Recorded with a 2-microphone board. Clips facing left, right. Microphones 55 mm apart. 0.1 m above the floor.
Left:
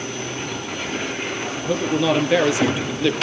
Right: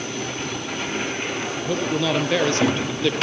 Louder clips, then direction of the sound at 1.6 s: Left 4 dB; 10° left (ahead or behind).